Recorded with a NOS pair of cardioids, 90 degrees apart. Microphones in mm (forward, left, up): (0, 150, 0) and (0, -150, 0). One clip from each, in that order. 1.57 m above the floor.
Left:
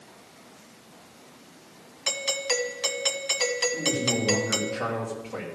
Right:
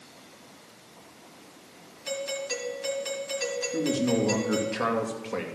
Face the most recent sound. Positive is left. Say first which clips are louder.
# even
turn(degrees=-60)